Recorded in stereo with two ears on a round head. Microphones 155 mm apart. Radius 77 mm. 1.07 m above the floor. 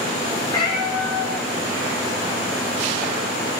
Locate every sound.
0.5 s a cat meowing: 25° left (ahead or behind), 3 m